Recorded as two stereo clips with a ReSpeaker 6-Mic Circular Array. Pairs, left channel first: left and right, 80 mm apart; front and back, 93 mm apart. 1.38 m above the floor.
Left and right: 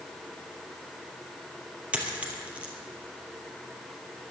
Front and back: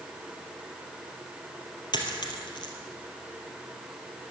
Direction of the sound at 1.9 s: 20° right.